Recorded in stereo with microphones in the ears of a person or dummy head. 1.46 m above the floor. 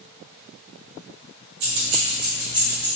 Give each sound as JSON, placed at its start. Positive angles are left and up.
{"t": 1.6, "sound": "keys jangling", "side_deg": -65, "distance_m": 0.8}